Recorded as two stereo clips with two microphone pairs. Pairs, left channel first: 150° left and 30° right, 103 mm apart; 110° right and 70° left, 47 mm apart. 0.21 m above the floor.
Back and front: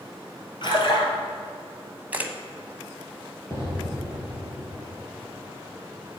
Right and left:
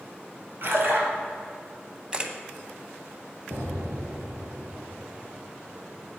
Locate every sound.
0.6 s a splash: 110° left, 2.0 m
2.1 s a camera shutter: 25° left, 0.9 m
3.5 s an explosion: 90° left, 3 m